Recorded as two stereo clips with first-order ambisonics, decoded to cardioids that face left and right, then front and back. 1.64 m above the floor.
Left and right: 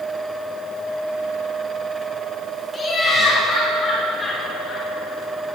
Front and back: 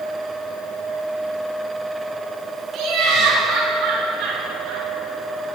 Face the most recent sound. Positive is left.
turn(degrees=175)